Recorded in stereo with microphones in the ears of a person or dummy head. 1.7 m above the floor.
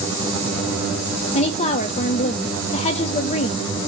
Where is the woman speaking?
40° left (ahead or behind), 0.6 m.